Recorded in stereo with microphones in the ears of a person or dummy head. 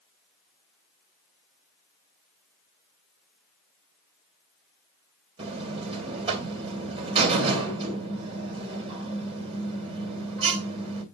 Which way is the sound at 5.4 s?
40° right (ahead or behind).